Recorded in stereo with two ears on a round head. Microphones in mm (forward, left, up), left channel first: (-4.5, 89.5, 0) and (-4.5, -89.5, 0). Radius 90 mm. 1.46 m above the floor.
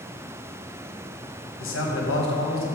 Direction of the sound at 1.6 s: 70° left (ahead or behind).